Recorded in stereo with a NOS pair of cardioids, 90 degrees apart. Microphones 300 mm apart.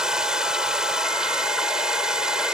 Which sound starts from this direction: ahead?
Running water, at 0.0 s.